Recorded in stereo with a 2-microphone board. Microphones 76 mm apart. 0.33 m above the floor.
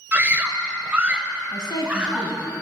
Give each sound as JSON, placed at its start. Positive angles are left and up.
{"t": 0.1, "sound": "a scream", "side_deg": -20, "distance_m": 1.5}
{"t": 1.5, "sound": "a woman speaking", "side_deg": 65, "distance_m": 3.0}